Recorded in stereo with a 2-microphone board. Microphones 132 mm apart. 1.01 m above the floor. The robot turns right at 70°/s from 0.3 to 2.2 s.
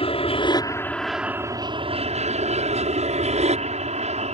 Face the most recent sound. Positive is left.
turn(degrees=-105)